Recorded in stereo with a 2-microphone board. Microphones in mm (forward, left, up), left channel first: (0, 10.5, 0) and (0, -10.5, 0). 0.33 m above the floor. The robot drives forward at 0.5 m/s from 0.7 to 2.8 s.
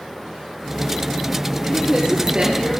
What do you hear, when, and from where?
1.6 s a woman speaking: 45° right (ahead or behind), 6 m